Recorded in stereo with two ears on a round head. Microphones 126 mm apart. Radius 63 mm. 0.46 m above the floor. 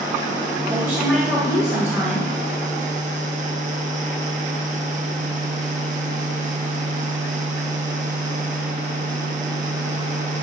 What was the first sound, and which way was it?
A woman speaking, 15° right (ahead or behind).